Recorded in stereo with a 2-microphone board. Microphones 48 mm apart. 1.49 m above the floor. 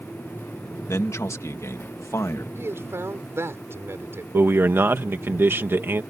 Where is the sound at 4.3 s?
50° right (ahead or behind).